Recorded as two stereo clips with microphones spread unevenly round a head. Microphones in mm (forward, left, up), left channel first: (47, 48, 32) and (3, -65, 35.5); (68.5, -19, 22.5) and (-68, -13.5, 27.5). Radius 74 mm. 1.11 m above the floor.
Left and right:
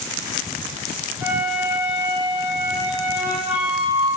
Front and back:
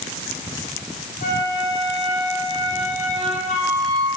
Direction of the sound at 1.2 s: 35° right.